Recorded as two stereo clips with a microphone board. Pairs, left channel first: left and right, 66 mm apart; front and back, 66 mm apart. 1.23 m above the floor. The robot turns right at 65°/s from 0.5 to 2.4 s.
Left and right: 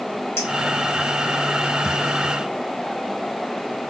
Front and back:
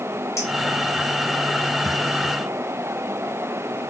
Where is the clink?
45° left, 2.0 m.